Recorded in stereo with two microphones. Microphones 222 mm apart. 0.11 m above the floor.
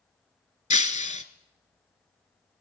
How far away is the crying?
I don't hear crying.